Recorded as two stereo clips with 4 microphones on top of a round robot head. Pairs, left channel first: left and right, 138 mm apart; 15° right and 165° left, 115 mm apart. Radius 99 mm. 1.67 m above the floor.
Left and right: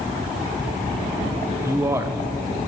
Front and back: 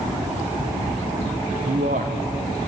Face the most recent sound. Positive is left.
turn(degrees=-155)